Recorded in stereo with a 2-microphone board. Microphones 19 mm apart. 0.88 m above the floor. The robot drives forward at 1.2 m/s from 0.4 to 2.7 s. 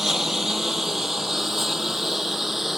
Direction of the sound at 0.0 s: 25° right (ahead or behind).